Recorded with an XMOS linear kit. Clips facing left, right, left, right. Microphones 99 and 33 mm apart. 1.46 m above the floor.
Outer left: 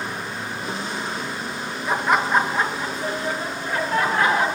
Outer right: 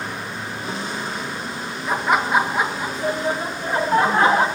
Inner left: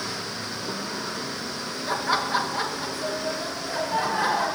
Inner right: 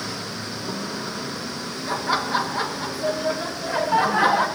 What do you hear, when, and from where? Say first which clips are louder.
1.9 s laughter: outer right 1 dB, inner right 1 dB; centre (ahead or behind), 1.7 m; by 4.5 s 35° right (ahead or behind), 3 m